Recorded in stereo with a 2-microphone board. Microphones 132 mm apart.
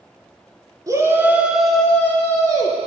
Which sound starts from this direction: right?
A shout, at 0.9 s.